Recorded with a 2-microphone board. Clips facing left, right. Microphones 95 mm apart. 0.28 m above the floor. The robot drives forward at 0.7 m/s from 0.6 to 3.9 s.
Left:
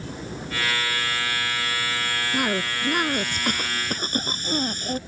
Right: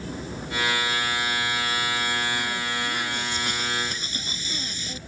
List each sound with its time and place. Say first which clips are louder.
2.3 s a cough: left 4 dB; 60° left (ahead or behind); by 5.0 s 50° left (ahead or behind)